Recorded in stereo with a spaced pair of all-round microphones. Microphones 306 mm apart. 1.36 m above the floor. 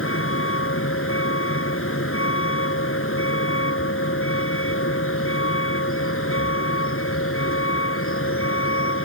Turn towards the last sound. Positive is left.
turn(degrees=45)  # may be behind; listen again after turning